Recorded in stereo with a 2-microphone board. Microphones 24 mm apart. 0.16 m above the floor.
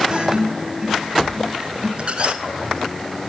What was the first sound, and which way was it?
A guitar, 40° right (ahead or behind).